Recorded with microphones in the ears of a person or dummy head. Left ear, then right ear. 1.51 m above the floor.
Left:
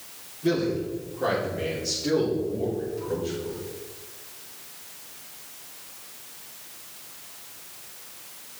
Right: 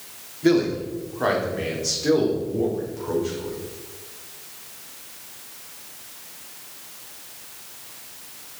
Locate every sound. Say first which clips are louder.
0.4 s a man speaking: right 5 dB; 75° right (ahead or behind), 3 m; by 3.5 s 65° right (ahead or behind), 4.5 m